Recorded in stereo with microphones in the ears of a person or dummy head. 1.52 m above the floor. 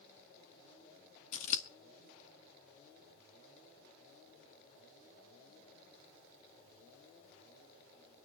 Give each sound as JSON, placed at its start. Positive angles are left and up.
{"t": 1.3, "sound": "scissors", "side_deg": 50, "distance_m": 1.7}